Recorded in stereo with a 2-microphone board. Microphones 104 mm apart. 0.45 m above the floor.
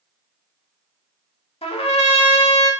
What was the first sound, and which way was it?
A trumpet, 70° left (ahead or behind).